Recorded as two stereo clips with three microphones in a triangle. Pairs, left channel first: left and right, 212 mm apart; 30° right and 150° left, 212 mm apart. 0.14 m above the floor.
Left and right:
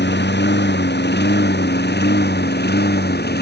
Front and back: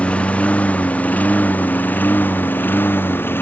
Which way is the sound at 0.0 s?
55° left.